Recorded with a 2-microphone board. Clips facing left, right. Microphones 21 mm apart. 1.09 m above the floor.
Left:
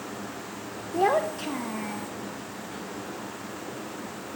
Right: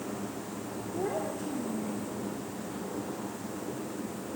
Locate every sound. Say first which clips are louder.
0.9 s a child speaking: left 10 dB; 70° left (ahead or behind), 0.8 m